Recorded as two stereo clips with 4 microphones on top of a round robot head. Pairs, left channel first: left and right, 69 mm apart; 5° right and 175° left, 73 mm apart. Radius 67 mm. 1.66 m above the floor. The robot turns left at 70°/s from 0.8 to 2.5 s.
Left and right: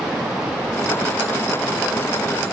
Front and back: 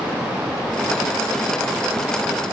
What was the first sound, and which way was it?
Only background noise.